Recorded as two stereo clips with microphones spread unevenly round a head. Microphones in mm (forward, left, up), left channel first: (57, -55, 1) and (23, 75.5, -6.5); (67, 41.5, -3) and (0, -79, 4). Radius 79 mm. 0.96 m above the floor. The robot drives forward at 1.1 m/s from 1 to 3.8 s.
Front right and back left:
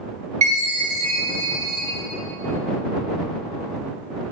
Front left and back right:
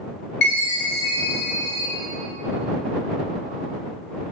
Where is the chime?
70° left, 3 m; by 1.9 s 90° left, 2.5 m.